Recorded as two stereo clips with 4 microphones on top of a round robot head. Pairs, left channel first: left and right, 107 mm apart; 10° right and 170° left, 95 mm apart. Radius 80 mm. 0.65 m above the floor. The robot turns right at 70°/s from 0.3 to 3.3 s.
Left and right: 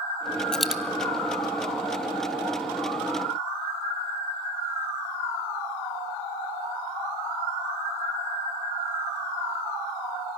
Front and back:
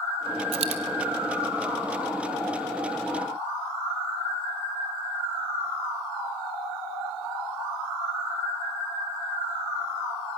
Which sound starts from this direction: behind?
A dropped coin, at 0.5 s.